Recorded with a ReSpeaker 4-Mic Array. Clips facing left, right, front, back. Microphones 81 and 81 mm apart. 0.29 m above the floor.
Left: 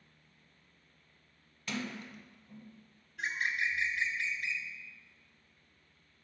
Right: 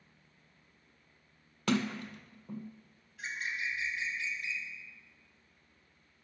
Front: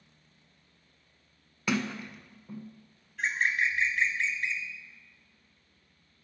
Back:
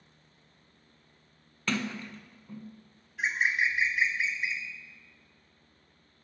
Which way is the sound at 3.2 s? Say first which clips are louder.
Left 4 dB, even; 100° left.